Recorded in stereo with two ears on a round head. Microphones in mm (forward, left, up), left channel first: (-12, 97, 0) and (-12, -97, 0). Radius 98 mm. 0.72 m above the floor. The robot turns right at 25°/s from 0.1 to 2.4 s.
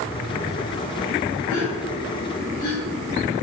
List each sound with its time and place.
1.5 s a gasp: 70° left (ahead or behind), 2.5 m; by 3.4 s 85° left, 2.5 m